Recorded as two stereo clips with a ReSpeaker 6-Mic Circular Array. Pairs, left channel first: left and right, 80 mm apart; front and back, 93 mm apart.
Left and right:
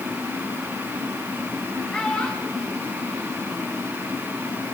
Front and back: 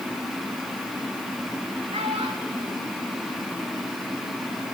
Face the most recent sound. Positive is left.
turn(degrees=180)